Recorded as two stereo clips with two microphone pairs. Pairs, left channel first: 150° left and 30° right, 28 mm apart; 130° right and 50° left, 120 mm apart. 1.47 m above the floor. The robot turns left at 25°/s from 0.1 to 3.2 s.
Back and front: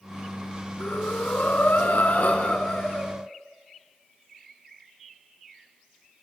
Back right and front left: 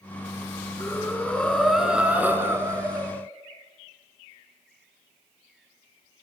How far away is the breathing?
About 3.5 m.